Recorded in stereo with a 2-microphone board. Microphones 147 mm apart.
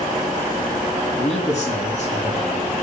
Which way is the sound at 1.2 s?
50° left (ahead or behind).